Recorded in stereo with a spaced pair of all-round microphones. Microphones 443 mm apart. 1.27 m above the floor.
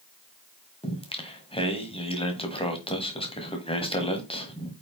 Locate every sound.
0.8 s singing: 10° left (ahead or behind), 1.5 m